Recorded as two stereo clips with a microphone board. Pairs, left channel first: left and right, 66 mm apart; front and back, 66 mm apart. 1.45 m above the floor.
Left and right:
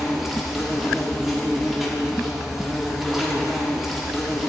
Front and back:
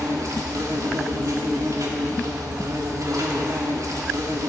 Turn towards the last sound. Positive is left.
turn(degrees=-175)